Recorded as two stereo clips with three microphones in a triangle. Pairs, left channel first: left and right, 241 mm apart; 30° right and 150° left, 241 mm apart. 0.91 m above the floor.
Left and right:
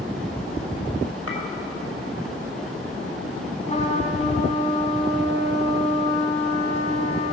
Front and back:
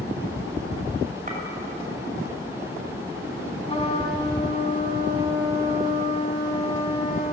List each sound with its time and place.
1.3 s a clink: 95° left, 2.5 m
3.7 s a trumpet: 30° left, 1.5 m